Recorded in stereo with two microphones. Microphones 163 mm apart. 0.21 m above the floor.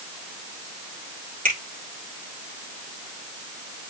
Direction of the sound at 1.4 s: 60° right (ahead or behind).